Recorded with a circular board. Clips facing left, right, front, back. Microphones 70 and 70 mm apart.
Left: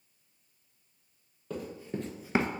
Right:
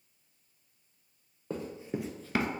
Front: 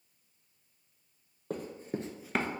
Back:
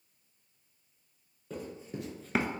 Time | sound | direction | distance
1.5 | running footsteps | 30° right | 1.1 m